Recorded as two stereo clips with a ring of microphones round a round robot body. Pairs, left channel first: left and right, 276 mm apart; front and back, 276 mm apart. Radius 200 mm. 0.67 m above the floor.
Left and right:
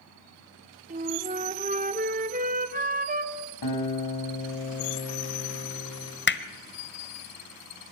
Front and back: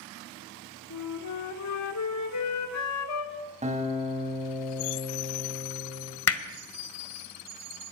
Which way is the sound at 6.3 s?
35° left.